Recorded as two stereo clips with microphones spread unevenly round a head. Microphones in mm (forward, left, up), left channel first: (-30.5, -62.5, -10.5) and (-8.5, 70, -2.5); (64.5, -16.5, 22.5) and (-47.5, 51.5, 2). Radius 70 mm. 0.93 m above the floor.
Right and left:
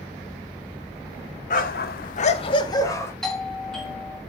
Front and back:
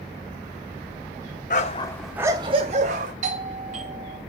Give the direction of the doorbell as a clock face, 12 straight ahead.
6 o'clock.